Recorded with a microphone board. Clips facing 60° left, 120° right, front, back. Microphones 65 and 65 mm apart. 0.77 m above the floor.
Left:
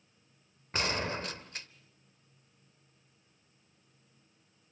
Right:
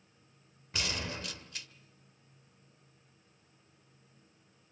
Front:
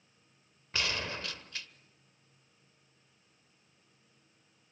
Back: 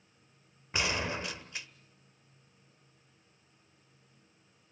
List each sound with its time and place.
0.7 s a gunshot: 110° left, 1.1 m